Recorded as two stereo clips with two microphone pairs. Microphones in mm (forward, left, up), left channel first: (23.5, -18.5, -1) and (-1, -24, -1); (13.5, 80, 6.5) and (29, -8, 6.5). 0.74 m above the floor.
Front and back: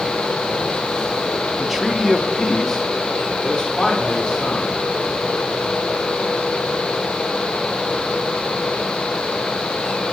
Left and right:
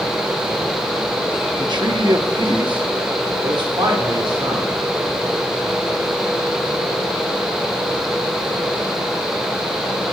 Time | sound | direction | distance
1.6 | a man speaking | 95° right | 0.6 m